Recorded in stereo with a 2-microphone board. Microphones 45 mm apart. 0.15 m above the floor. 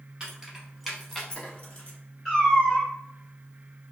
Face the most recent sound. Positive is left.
turn(degrees=10)  # may be behind; listen again after turning